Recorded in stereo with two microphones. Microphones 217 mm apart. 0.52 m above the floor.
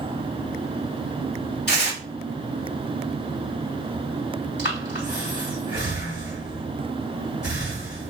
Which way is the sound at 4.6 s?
55° left (ahead or behind).